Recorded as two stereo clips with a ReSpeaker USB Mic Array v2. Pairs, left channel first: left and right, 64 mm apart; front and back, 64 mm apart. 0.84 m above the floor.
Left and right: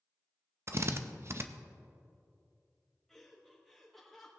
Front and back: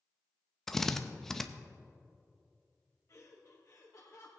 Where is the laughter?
10° left, 1.2 m.